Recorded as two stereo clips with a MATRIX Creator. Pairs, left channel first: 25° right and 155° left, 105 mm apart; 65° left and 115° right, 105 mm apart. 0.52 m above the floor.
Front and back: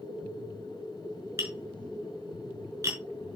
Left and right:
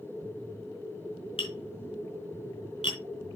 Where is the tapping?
95° left, 4 m.